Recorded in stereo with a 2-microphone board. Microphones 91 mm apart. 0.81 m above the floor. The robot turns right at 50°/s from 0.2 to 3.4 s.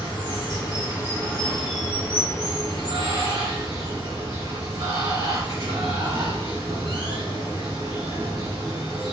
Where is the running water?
110° left, 2 m; by 9.1 s 90° right, 2 m.